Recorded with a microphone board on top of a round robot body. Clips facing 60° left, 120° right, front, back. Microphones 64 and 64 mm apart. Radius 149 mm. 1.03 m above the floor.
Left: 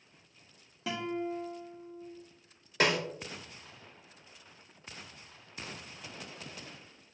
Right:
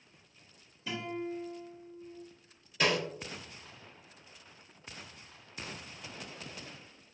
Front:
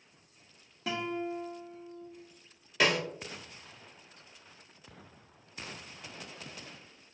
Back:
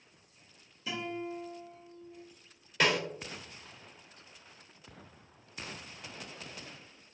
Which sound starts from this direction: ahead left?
A guitar, at 0.9 s.